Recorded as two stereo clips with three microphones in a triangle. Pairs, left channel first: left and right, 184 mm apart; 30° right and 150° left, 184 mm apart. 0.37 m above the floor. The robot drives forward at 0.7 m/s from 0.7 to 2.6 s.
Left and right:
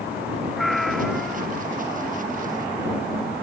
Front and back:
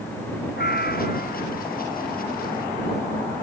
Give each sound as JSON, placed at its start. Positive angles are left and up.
{"t": 0.6, "sound": "a cat meowing", "azimuth_deg": 0}